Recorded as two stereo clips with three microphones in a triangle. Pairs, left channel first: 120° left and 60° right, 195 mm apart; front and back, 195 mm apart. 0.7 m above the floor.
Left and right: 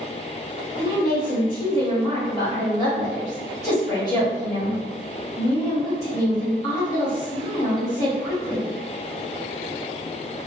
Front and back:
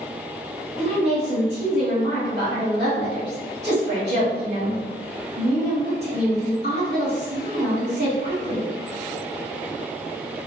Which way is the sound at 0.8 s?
175° right.